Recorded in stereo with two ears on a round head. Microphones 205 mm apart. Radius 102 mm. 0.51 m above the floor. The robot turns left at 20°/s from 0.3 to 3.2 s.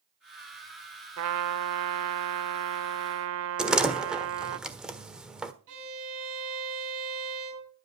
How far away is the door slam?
About 1.3 m.